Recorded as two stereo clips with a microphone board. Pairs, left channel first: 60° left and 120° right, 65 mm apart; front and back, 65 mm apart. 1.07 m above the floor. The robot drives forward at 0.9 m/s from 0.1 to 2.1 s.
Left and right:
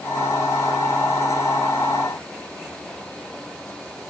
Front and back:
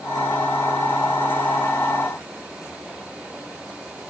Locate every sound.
Only background noise.